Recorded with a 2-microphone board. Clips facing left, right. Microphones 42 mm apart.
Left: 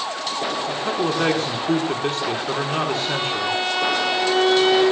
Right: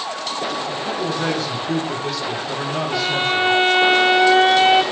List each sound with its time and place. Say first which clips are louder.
0.7 s a man speaking: left 1 dB; 40° left (ahead or behind), 6 m
2.9 s a violin: right 4 dB; 35° right (ahead or behind), 3 m